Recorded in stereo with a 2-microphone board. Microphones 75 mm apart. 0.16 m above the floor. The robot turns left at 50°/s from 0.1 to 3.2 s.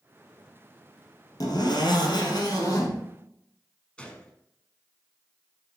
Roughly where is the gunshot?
Centre.